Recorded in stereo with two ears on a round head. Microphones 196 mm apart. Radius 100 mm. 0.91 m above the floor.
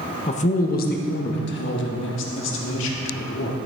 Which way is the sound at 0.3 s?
30° left (ahead or behind).